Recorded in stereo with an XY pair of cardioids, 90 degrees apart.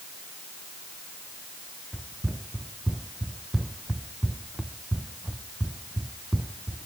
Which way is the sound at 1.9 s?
10° right.